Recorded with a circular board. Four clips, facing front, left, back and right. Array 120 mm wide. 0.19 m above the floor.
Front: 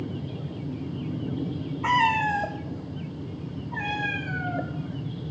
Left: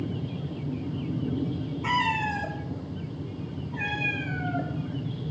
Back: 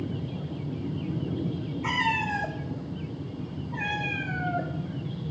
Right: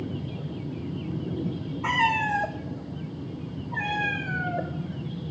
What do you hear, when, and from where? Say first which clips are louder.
1.8 s a cat meowing: right 2 dB, front 6 dB; 25° right, 1.9 m; by 4.7 s 50° right, 3.5 m